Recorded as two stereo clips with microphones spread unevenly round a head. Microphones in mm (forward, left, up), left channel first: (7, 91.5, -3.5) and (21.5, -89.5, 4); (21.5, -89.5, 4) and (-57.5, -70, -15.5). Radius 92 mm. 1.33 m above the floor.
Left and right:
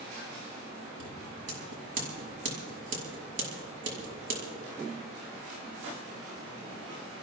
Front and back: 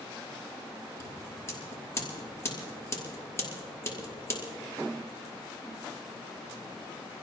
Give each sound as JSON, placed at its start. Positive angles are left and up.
{"t": 1.0, "sound": "scissors", "azimuth_deg": -65, "distance_m": 5.5}